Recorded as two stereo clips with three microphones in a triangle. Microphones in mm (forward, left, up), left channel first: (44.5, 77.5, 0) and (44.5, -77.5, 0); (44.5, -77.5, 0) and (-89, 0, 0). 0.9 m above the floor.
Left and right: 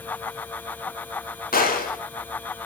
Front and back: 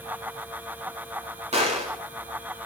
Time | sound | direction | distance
1.5 | a gunshot | 105° left | 4.5 m